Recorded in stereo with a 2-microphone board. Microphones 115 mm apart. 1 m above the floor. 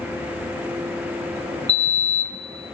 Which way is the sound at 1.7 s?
10° left (ahead or behind).